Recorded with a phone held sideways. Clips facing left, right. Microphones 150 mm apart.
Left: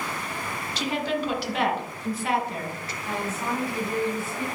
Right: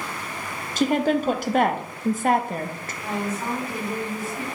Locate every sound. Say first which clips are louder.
0.8 s a woman speaking: right 7 dB; 45° right (ahead or behind), 0.9 m
3.0 s a woman speaking: right 3 dB; 30° right (ahead or behind), 3 m